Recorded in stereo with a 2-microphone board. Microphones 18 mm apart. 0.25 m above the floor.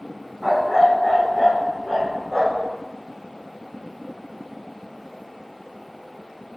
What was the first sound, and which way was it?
A dog barking, 25° right (ahead or behind).